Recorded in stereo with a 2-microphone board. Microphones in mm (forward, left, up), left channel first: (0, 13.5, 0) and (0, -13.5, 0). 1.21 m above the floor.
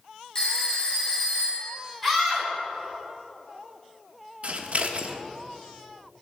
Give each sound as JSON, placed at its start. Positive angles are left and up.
{"t": 0.3, "sound": "a phone ringing", "side_deg": 20, "distance_m": 2.0}
{"t": 2.0, "sound": "a scream", "side_deg": 5, "distance_m": 3.5}
{"t": 4.4, "sound": "scissors", "side_deg": -50, "distance_m": 1.0}